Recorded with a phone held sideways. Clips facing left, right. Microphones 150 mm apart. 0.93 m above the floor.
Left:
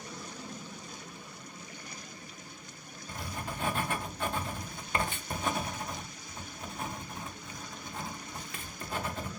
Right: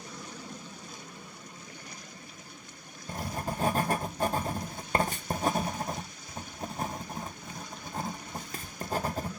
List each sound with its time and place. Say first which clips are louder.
3.1 s writing: right 5 dB; 40° right (ahead or behind), 0.6 m